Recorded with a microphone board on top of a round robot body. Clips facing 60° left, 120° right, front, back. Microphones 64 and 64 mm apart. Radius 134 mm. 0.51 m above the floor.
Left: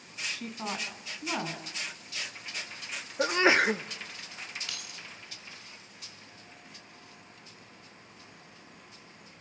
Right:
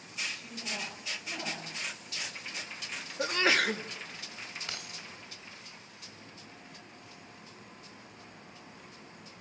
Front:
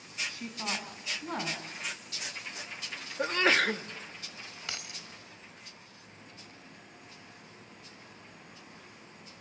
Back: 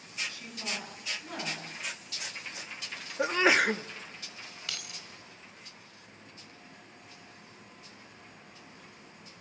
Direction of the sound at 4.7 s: 60° right.